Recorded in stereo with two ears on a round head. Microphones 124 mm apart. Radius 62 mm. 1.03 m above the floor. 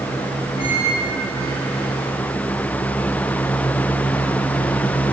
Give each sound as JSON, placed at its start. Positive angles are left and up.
{"t": 0.6, "sound": "a squeak", "side_deg": 45, "distance_m": 4.5}